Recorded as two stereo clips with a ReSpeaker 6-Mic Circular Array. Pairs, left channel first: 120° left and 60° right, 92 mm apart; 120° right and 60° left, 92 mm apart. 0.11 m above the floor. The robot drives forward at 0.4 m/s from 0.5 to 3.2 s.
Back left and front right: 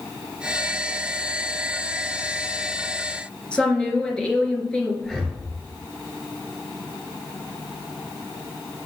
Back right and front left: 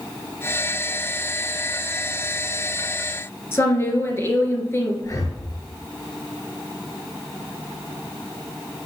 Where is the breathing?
155° right, 1.4 m.